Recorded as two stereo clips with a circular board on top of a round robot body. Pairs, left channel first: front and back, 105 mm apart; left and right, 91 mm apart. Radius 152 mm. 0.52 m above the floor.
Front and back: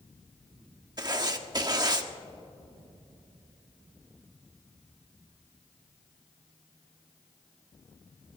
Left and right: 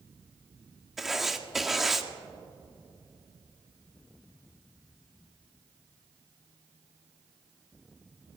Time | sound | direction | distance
1.0 | writing | 175° right | 1.4 m